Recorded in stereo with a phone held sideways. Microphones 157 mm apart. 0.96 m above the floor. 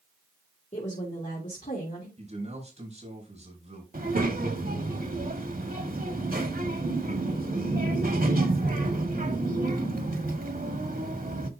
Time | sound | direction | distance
0.7 | a woman speaking | 45° left (ahead or behind) | 2.5 m
2.2 | a man speaking | 45° right (ahead or behind) | 5.5 m
3.9 | a child speaking | 70° right (ahead or behind) | 1.5 m